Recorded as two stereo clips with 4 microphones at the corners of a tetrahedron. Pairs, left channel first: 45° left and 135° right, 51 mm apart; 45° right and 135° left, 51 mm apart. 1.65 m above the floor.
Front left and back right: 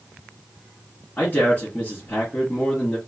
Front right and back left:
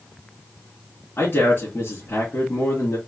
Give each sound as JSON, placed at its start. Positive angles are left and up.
{"t": 1.2, "sound": "a man speaking", "azimuth_deg": -5, "distance_m": 2.5}